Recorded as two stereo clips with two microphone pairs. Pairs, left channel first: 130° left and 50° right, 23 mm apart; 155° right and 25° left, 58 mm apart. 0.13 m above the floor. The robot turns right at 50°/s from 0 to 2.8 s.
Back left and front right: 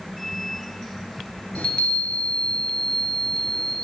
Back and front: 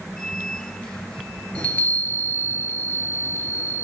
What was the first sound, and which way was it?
A chime, 140° left.